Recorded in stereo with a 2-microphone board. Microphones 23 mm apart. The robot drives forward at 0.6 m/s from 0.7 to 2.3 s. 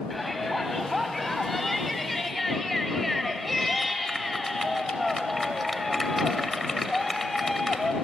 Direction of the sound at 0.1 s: 5° left (ahead or behind).